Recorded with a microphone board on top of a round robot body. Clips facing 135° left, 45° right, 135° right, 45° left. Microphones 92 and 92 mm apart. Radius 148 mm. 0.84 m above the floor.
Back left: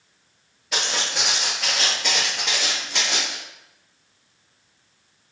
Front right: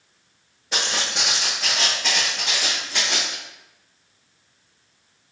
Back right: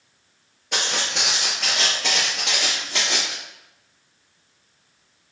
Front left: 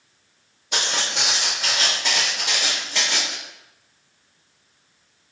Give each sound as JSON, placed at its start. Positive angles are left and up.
{"t": 0.7, "sound": "footsteps", "azimuth_deg": -100, "distance_m": 0.9}